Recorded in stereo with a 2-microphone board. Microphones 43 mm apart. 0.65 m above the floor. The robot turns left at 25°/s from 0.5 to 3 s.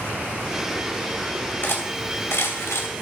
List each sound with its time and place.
1.6 s cutlery clinking: 45° left (ahead or behind), 2.5 m; by 2.9 s 75° left (ahead or behind), 2.5 m